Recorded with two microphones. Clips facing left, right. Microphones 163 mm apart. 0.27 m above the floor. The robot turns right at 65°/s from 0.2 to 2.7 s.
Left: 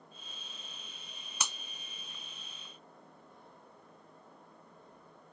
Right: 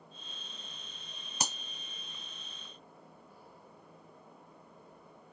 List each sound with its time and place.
1.4 s breaking glass: 40° right (ahead or behind); by 1.6 s 50° right (ahead or behind)